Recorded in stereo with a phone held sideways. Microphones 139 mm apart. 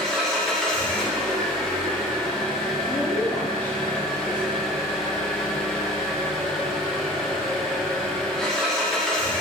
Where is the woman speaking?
10° left (ahead or behind), 1.0 m.